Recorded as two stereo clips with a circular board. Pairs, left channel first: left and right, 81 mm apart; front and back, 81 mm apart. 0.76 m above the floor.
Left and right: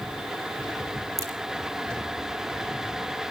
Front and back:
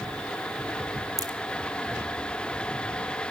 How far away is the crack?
About 2 m.